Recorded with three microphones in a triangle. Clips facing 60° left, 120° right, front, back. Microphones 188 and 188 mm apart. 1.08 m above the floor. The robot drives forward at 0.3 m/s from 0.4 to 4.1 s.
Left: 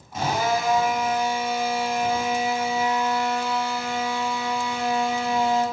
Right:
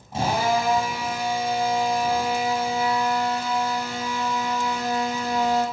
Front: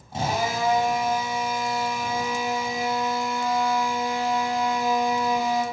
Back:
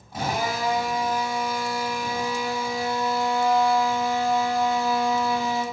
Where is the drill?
60° right, 6 m; by 5.6 s 70° right, 5.5 m.